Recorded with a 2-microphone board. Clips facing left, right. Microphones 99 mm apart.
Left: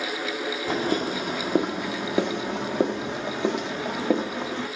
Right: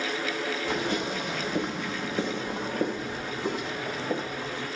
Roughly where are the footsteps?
Left.